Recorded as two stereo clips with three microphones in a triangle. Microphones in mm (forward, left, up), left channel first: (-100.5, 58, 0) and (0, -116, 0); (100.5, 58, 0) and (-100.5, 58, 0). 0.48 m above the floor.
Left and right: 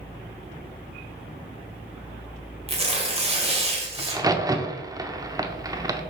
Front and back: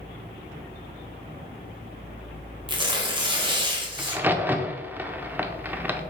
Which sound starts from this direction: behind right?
Tearing paper, at 2.7 s.